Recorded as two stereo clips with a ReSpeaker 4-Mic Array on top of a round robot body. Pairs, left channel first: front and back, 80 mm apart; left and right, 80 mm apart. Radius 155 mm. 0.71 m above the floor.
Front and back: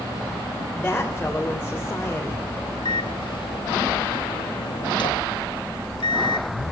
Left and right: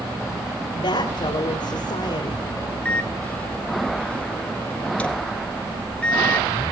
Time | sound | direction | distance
0.8 | a woman speaking | 75° left | 3 m
2.9 | a microwave | 15° left | 2.0 m